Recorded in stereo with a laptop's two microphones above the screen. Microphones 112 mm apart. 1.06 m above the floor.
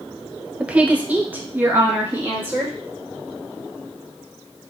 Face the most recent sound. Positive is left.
turn(degrees=-20)  # may be behind; listen again after turning